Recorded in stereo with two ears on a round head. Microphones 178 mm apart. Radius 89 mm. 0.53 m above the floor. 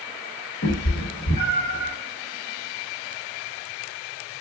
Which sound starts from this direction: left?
A cat meowing, at 0.6 s.